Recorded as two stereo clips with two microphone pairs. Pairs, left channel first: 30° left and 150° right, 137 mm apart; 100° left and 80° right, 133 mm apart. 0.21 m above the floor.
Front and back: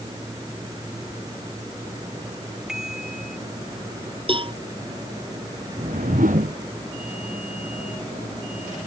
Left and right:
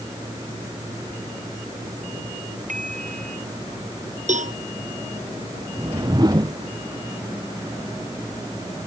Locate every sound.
2.7 s a bicycle bell: 60° right
4.3 s a cowbell: 100° right
5.8 s a whoosh: 140° right